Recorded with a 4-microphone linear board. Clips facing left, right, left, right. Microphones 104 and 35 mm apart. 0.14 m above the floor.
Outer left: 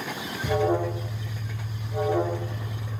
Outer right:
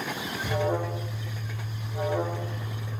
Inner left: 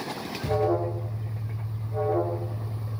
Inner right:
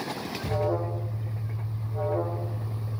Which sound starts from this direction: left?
An alarm, at 0.4 s.